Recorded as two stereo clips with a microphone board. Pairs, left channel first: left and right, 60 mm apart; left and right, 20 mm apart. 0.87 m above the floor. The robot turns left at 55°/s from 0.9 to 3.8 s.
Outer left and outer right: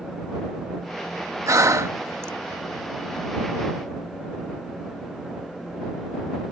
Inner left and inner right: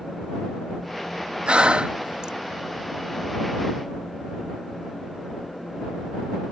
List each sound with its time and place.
1.5 s breathing: 60° right (ahead or behind); by 2.3 s 45° right (ahead or behind)